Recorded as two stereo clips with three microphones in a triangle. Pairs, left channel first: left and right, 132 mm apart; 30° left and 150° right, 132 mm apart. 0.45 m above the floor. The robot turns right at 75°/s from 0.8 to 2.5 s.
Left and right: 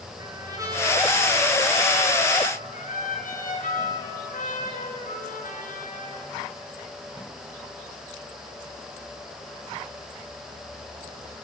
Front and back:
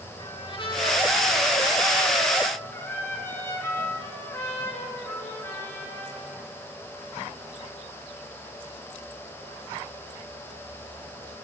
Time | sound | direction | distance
0.2 | a trumpet | 25° right | 6.5 m